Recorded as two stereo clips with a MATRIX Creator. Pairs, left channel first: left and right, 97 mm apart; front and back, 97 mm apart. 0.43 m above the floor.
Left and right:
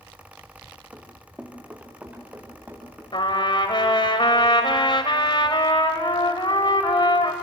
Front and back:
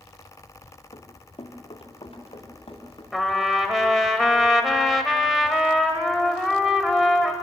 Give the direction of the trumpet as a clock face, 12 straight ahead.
9 o'clock.